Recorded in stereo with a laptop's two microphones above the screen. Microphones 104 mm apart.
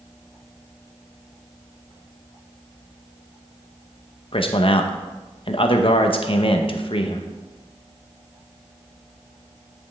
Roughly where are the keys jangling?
No keys jangling in this recording.